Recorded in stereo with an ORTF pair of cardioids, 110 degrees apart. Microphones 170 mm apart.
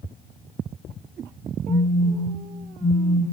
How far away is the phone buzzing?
About 1.1 m.